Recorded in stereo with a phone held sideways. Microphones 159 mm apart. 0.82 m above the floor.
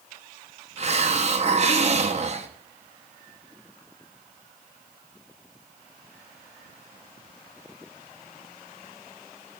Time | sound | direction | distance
0.8 | a hiss | 45° right (ahead or behind) | 0.8 m